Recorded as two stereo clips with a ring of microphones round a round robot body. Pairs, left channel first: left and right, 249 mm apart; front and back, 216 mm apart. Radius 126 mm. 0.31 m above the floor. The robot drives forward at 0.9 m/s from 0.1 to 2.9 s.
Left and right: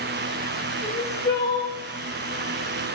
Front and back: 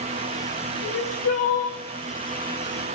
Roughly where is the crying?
Ahead.